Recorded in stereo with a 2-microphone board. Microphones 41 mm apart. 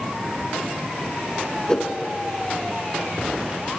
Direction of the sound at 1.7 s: 20° left (ahead or behind).